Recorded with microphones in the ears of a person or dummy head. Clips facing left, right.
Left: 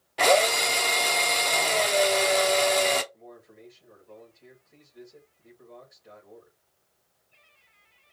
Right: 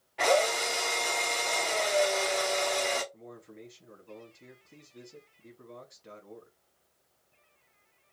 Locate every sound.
0.2 s a drill: 50° left (ahead or behind), 0.8 m
3.1 s a man speaking: 50° right (ahead or behind), 2 m